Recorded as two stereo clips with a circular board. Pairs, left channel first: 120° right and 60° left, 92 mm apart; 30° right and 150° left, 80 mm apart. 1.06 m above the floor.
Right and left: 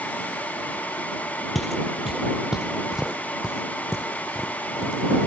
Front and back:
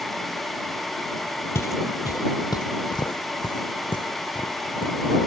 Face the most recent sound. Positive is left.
turn(degrees=-20)